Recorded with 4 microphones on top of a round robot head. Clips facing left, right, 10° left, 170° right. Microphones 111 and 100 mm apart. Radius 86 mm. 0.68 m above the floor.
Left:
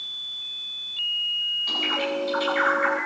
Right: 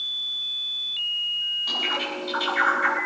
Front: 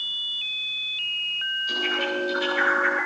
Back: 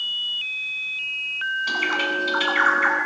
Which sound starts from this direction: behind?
A bird, at 1.7 s.